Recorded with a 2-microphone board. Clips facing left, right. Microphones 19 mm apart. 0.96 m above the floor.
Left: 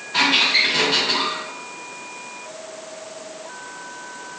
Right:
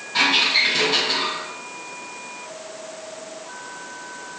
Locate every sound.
0.1 s a squeak: 75° left (ahead or behind), 1.8 m